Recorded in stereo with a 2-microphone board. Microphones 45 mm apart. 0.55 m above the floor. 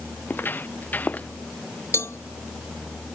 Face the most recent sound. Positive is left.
turn(degrees=85)